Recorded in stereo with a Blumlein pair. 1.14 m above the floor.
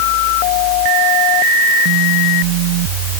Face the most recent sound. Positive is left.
No sound to turn to.